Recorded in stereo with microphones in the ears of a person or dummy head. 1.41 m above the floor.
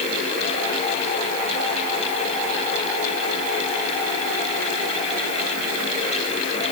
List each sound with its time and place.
Only background noise.